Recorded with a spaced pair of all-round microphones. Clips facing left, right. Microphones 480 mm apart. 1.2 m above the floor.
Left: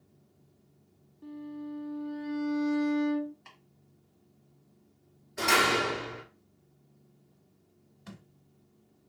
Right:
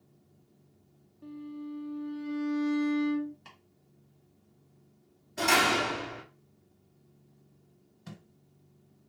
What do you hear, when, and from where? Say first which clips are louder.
1.2 s a violin: even; 5° left (ahead or behind), 0.7 m
3.5 s chopping: right 2 dB; 50° right (ahead or behind), 1.9 m
5.4 s a door slam: even; 50° right (ahead or behind), 2 m
8.1 s a thud: right 1 dB; 20° right (ahead or behind), 1.7 m